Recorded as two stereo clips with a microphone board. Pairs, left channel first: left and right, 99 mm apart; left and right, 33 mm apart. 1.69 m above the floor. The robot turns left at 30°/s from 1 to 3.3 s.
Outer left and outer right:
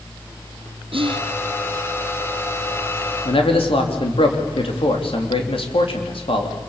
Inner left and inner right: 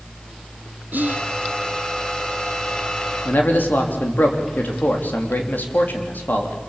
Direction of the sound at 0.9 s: 70° right (ahead or behind).